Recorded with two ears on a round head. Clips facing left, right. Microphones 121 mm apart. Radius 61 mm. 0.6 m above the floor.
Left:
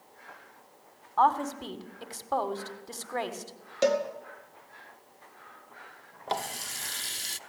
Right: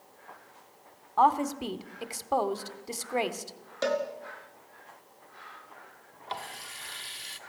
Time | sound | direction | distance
1.2 | a woman speaking | 15° right (ahead or behind) | 1.4 m
3.8 | a cowbell | 20° left (ahead or behind) | 2 m
6.3 | a running tap | 50° left (ahead or behind) | 0.7 m